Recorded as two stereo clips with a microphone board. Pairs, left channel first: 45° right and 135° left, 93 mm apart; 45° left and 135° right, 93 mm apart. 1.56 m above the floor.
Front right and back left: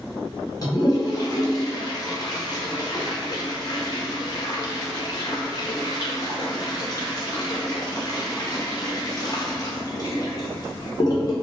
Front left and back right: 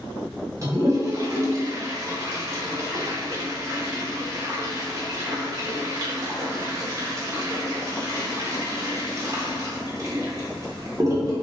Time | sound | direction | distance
0.6 | a toilet flushing | 85° right | 0.8 m